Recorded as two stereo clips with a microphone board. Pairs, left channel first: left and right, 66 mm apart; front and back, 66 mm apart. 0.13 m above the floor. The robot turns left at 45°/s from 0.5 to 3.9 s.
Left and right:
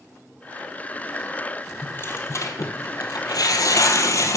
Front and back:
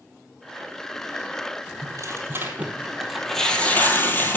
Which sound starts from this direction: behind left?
Tearing paper, at 1.8 s.